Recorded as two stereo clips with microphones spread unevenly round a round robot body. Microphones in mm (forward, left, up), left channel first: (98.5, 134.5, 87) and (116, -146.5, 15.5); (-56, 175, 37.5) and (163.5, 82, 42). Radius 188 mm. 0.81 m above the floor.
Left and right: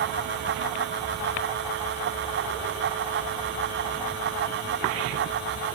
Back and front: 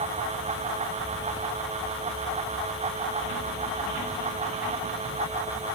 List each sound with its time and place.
Only background noise.